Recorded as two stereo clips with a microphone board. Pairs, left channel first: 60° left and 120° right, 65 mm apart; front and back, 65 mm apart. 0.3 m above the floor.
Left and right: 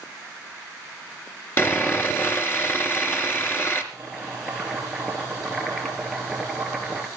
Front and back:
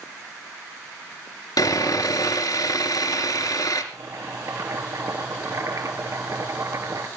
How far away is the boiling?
About 4.5 m.